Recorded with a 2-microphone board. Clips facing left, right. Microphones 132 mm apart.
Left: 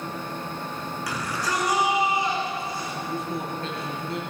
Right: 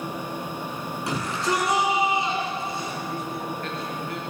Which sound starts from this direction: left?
A man speaking, at 3.1 s.